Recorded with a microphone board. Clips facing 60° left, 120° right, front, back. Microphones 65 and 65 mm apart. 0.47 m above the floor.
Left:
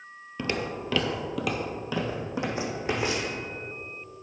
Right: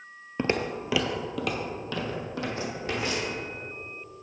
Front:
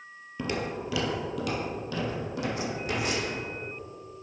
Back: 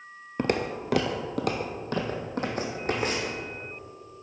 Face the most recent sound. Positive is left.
turn(degrees=125)